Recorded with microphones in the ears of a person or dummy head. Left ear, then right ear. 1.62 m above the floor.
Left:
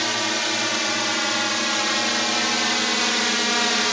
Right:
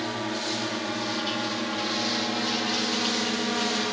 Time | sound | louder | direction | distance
0.0 | a drone | left 8 dB | 70° left (ahead or behind) | ?